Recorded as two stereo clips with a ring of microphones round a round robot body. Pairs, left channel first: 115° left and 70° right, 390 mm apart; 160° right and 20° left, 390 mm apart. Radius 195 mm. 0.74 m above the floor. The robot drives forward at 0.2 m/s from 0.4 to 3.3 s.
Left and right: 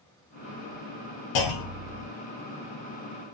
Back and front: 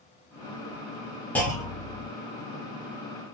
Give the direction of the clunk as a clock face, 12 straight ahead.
8 o'clock.